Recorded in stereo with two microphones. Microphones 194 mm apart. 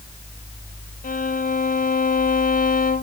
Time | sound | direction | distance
1.0 | a violin | 45° left (ahead or behind) | 0.7 m